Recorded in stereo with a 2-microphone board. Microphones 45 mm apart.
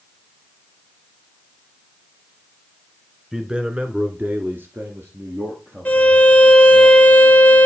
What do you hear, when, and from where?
3.3 s a man speaking: 15° right (ahead or behind), 1.2 m; by 6.8 s 70° right (ahead or behind), 3.5 m
5.8 s a violin: 35° left (ahead or behind), 1.1 m